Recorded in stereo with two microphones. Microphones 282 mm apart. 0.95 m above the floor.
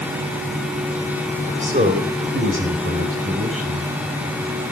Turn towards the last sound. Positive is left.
turn(degrees=-60)  # may be behind; listen again after turning